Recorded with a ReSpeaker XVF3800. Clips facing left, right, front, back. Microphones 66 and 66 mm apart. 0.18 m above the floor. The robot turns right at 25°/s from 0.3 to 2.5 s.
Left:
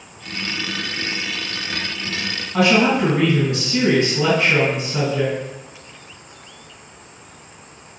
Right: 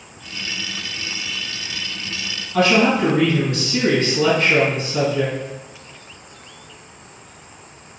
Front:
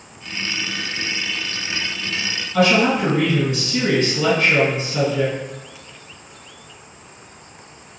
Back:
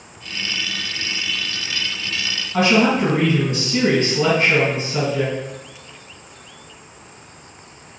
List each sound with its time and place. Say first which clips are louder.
2.5 s a woman speaking: even, even; 150° left, 1.9 m